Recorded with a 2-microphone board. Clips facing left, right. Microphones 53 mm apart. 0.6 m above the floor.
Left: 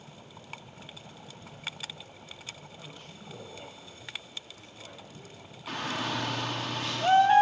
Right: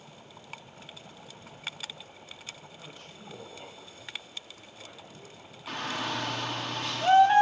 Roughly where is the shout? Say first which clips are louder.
Even; centre.